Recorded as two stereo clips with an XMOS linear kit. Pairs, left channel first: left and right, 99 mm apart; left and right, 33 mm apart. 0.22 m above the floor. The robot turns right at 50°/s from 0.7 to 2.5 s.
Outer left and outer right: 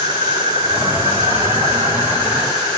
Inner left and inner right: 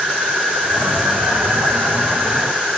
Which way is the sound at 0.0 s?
130° right.